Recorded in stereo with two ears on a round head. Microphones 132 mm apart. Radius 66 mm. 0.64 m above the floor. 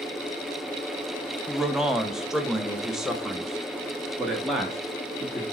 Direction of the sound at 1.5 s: 5° right (ahead or behind).